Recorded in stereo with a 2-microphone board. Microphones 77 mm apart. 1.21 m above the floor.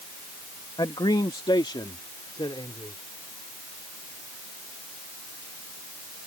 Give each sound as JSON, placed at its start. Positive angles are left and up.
{"t": 0.8, "sound": "a man speaking", "side_deg": 65}